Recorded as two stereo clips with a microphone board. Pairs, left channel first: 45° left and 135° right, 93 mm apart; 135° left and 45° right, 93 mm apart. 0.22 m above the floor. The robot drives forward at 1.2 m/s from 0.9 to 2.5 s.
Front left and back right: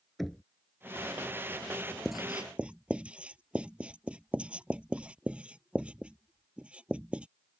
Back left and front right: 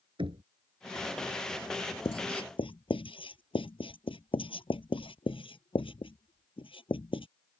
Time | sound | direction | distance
0.2 | knocking | 45° right | ?
2.0 | writing | 135° left | ?